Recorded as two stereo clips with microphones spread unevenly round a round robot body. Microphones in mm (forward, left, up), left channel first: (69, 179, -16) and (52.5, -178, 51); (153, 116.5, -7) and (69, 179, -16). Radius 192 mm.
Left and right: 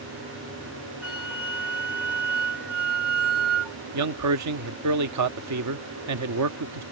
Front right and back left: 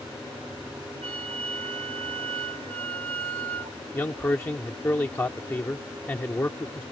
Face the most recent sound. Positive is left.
turn(degrees=-100)